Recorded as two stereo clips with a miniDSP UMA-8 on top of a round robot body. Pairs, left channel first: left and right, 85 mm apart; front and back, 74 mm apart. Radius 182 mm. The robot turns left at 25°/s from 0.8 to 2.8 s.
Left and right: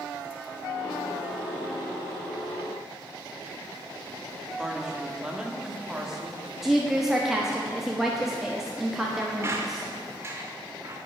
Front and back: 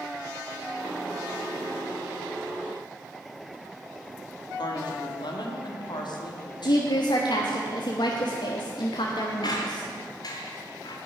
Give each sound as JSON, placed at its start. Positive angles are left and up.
{"t": 4.6, "sound": "a woman speaking", "azimuth_deg": -10, "distance_m": 2.0}
{"t": 6.6, "sound": "a woman speaking", "azimuth_deg": -5, "distance_m": 1.3}
{"t": 9.4, "sound": "a squeak", "azimuth_deg": -30, "distance_m": 0.7}